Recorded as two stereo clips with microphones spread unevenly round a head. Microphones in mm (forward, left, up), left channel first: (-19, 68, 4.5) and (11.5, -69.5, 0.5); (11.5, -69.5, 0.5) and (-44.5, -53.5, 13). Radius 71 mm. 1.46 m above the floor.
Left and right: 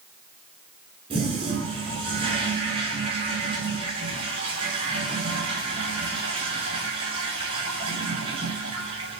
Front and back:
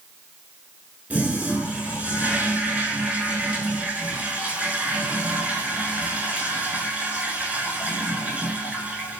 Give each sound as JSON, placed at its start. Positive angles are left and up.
{"t": 1.1, "sound": "a toilet flushing", "azimuth_deg": -130, "distance_m": 8.0}